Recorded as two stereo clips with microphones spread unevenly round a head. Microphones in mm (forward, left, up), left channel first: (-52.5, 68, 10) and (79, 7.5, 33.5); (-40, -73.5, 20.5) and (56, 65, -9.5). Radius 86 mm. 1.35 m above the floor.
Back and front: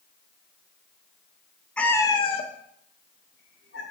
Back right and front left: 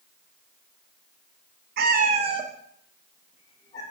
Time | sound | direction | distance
1.8 | a cat meowing | 65° left | 0.7 m